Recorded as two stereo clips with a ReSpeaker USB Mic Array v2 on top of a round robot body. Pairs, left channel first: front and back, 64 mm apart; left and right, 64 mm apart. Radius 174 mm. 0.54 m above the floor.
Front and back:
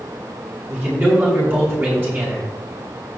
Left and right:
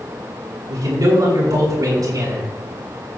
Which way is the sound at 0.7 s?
120° right.